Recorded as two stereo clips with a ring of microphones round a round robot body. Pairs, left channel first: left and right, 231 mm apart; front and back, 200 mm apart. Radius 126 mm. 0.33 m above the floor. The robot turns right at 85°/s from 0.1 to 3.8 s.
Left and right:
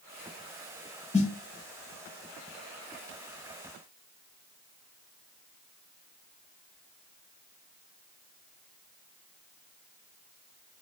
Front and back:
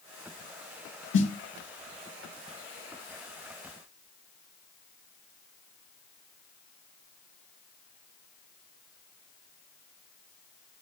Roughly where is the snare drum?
Ahead left.